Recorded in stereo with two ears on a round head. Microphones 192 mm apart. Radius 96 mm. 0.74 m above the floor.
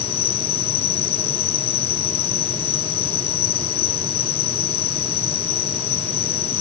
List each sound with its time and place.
0.0 s an insect: 45° left (ahead or behind)